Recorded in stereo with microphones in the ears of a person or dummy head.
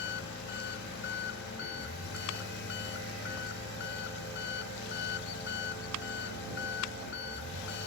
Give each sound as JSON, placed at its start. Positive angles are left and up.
{"t": 0.0, "sound": "an engine running", "side_deg": 60}